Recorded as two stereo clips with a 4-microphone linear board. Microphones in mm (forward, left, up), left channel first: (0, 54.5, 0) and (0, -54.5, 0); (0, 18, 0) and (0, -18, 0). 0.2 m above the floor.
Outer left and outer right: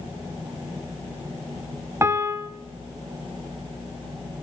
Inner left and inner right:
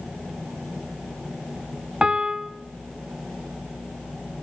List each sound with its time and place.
2.0 s a piano: 25° right (ahead or behind), 0.8 m